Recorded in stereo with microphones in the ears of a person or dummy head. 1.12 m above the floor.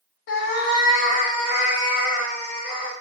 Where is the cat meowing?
60° left (ahead or behind), 0.7 m; by 2.9 s 30° left (ahead or behind), 1.7 m.